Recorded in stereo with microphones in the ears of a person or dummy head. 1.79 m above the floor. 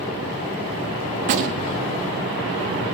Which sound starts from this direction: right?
A gunshot, at 1.2 s.